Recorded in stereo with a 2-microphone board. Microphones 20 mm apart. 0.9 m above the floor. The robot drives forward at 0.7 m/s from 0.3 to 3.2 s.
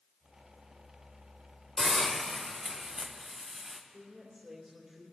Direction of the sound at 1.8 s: 15° left (ahead or behind).